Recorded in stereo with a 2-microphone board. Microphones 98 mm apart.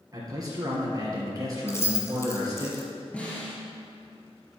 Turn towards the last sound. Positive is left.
turn(degrees=10)  # may be behind; listen again after turning